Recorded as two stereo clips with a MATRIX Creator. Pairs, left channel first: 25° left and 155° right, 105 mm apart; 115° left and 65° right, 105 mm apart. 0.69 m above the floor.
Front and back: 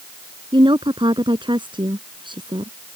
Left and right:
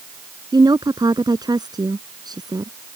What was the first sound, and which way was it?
A woman speaking, 120° right.